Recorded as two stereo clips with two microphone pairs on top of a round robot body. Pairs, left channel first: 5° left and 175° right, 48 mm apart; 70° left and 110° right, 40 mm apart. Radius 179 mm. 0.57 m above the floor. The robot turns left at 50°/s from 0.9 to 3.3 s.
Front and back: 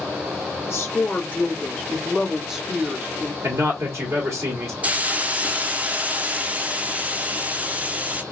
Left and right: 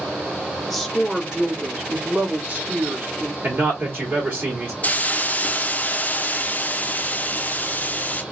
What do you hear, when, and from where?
0.7 s a woman speaking: 20° right, 1.6 m; by 3.3 s 140° right, 1.6 m
3.4 s a man speaking: 150° right, 2 m
4.8 s a hiss: 130° left, 0.7 m